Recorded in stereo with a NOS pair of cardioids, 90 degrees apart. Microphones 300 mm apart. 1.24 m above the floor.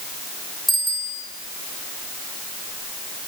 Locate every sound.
0.7 s a bicycle bell: straight ahead, 10 m